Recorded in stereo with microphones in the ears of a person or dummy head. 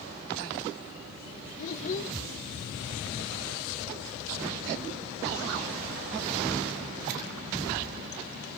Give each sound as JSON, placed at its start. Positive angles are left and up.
{"t": 1.6, "sound": "a child speaking", "side_deg": 40, "distance_m": 1.0}